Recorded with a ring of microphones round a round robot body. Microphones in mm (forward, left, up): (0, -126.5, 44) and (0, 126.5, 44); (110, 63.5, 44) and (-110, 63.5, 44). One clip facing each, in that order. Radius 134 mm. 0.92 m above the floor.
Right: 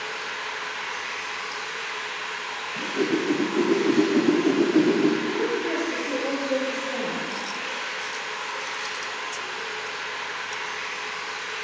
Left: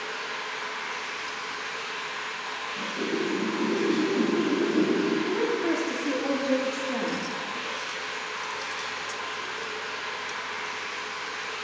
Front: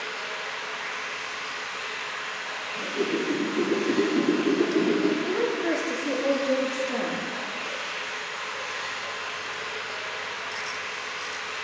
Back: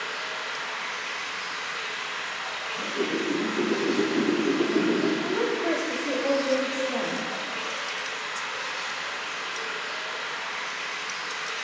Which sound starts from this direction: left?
A woman speaking, at 5.2 s.